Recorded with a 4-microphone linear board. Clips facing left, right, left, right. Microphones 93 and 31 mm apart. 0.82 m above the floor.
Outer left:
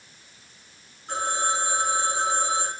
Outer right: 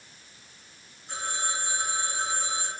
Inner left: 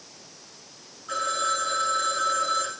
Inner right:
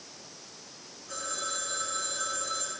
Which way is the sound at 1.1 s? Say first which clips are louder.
Outer left 7 dB, inner left 10 dB; 65° left (ahead or behind).